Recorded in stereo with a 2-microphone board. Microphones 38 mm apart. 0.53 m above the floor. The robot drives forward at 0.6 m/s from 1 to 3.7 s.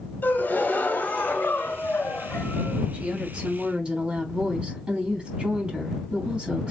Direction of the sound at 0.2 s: 50° left (ahead or behind).